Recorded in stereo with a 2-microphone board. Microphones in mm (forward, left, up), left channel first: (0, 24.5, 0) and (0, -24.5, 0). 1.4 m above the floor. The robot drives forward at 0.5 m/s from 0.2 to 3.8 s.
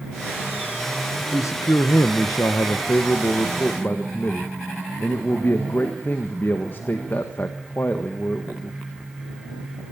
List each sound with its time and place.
1.2 s a man speaking: 75° left (ahead or behind), 1.0 m; by 8.8 s 45° left (ahead or behind), 1.4 m